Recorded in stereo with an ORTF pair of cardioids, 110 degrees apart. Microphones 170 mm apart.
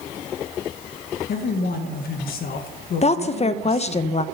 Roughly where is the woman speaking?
Ahead left.